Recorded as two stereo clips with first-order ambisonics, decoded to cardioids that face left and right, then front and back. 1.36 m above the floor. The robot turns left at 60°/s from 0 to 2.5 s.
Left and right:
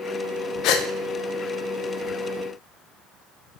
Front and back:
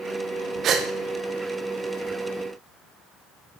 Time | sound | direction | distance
0.6 | a gasp | 125° left | 1.4 m